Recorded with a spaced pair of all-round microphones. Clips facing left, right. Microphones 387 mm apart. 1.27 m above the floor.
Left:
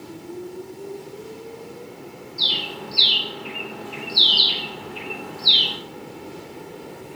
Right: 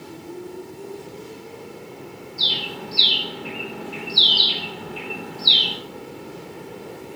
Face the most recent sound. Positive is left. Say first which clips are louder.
# even
turn(degrees=-30)  # may be behind; listen again after turning